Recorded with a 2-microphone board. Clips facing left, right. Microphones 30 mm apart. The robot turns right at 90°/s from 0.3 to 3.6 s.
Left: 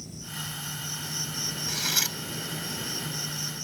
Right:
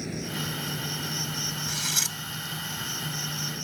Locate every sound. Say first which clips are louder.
0.0 s an insect: right 6 dB; 100° right; by 3.6 s 160° right
1.7 s cutlery clinking: left 3 dB; 5° left (ahead or behind); by 2.2 s 20° left (ahead or behind)